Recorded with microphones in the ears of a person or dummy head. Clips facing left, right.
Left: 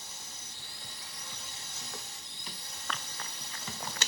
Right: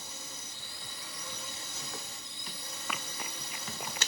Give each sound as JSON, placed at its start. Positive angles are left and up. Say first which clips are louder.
{"t": 0.0, "sound": "a drone", "louder": "right 4 dB", "side_deg": -60}
{"t": 2.9, "sound": "running footsteps", "louder": "right 1 dB", "side_deg": -5}